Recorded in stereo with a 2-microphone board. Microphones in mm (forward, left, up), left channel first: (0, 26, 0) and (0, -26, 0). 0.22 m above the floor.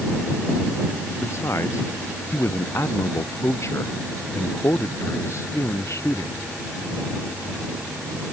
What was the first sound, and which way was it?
A man speaking, 60° left (ahead or behind).